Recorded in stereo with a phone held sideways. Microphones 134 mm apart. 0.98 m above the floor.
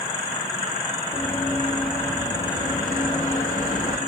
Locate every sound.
1.1 s running footsteps: 80° left, 8 m; by 4.0 s 70° left (ahead or behind), 6 m